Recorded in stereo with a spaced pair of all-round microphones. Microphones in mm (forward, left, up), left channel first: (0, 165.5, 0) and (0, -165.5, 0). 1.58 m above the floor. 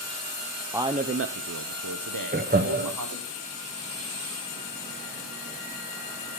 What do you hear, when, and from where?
0.7 s a man speaking: 5° right (ahead or behind), 0.5 m; by 3.3 s 70° right (ahead or behind), 1.6 m
2.3 s laughter: 30° right (ahead or behind), 0.8 m